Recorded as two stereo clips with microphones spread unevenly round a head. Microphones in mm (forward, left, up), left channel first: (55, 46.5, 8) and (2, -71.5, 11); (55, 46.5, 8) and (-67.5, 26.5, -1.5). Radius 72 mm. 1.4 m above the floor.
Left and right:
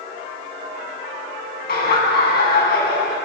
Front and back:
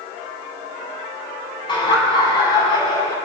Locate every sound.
1.7 s laughter: 60° left, 9.5 m; by 3.1 s 70° left, 9 m